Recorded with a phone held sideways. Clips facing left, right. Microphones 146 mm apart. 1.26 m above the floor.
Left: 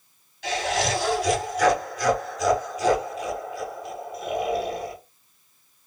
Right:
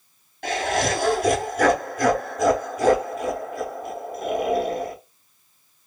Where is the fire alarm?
No fire alarm in this recording.